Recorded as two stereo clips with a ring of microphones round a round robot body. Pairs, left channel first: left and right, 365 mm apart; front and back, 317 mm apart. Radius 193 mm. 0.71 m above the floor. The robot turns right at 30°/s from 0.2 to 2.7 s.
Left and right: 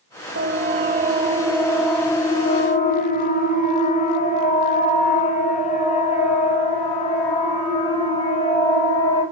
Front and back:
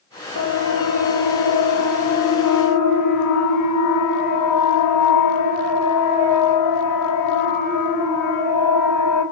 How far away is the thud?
I don't hear a thud.